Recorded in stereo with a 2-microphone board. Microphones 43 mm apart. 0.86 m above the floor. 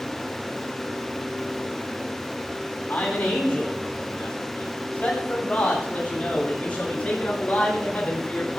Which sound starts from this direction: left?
A man speaking, at 2.9 s.